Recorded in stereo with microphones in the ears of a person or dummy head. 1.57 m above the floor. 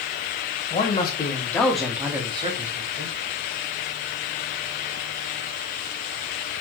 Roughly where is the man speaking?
Left.